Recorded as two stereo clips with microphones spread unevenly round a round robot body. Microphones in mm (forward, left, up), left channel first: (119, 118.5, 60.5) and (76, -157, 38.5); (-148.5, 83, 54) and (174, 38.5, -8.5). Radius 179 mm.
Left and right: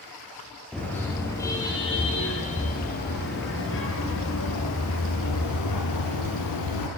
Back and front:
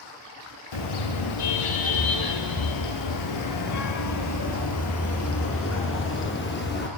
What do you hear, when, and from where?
0.7 s a car horn: 170° left, 8.5 m; by 6.9 s 115° left, 10 m